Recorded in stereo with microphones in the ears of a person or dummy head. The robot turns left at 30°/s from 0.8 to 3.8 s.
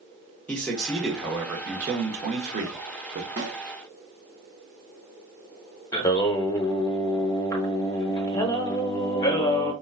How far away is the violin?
No violin in this recording.